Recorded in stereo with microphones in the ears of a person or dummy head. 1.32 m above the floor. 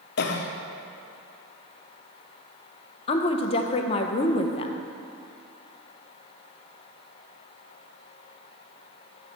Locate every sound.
0.2 s a cough: 60° left (ahead or behind), 0.6 m
3.1 s a woman speaking: 35° left (ahead or behind), 0.5 m